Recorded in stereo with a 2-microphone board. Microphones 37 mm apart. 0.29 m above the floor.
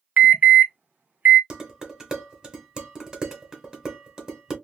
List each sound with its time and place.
0.2 s an alarm: 45° right (ahead or behind), 0.9 m
1.5 s dishes clattering: 20° right (ahead or behind), 1.2 m